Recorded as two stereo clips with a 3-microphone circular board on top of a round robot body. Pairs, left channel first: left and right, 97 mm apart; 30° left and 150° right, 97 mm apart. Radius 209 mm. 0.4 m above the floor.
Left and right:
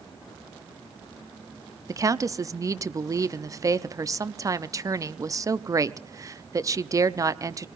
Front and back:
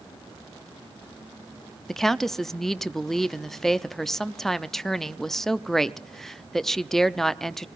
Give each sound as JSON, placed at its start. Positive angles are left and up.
{"t": 1.9, "sound": "a woman speaking", "azimuth_deg": -55, "distance_m": 0.9}